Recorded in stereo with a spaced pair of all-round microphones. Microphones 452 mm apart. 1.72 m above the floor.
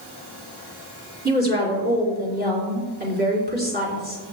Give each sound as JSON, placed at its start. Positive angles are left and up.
{"t": 1.2, "sound": "a woman speaking", "side_deg": -20, "distance_m": 4.0}